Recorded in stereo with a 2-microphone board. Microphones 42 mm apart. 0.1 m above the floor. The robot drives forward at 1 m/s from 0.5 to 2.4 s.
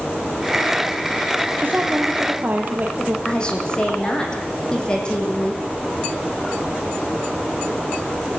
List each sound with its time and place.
1.6 s a woman speaking: 55° right (ahead or behind), 3.5 m; by 3.1 s 45° right (ahead or behind), 4 m
3.2 s a woman speaking: 20° left (ahead or behind), 4.5 m